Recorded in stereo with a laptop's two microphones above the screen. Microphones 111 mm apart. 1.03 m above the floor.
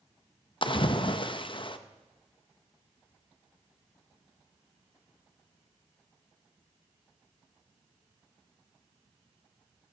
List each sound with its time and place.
0.6 s a splash: 50° left (ahead or behind), 0.5 m